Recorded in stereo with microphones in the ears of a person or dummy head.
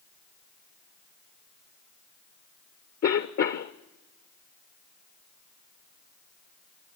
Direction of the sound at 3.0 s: 50° left (ahead or behind).